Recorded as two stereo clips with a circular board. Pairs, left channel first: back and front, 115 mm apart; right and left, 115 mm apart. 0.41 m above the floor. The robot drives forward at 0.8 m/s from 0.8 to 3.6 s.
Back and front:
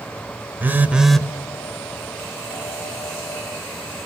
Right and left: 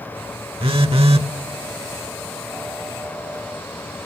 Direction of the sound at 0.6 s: 70° left.